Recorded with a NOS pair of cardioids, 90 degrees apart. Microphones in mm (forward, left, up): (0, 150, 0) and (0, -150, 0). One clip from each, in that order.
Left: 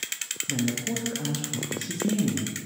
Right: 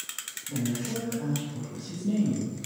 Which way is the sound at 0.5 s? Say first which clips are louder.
Left 3 dB; 40° left.